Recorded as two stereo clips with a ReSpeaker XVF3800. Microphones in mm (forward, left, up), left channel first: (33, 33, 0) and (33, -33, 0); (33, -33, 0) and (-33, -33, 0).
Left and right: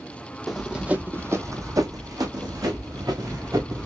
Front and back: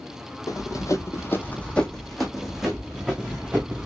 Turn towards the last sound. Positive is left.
turn(degrees=-110)